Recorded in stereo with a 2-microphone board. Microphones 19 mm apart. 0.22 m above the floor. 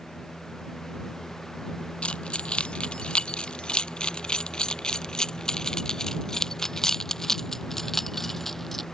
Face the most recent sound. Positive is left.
turn(degrees=10)  # may be behind; listen again after turning